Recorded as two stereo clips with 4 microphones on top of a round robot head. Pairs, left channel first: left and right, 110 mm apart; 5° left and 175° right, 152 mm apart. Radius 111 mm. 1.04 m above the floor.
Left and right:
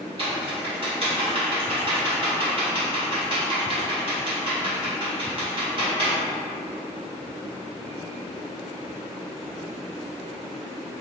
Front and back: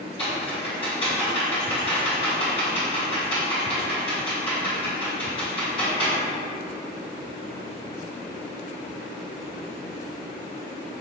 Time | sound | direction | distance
0.2 | typing on a keyboard | 60° right | 1.2 m